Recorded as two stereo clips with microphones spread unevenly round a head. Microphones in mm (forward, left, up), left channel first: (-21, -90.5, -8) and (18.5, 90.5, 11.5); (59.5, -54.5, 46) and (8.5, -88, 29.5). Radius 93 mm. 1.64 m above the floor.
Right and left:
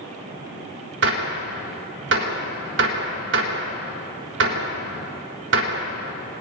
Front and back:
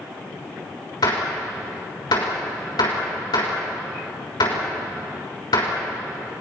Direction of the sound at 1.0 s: 55° left.